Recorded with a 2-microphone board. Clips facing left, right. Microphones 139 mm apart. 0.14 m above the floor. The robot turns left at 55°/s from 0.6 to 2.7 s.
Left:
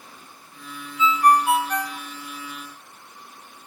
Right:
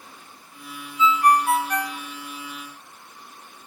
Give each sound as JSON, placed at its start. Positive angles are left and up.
{"t": 1.0, "sound": "a ringtone", "azimuth_deg": 50, "distance_m": 0.6}